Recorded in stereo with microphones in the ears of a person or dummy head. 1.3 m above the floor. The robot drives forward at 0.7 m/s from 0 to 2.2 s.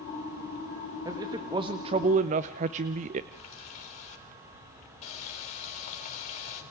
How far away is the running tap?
About 5 m.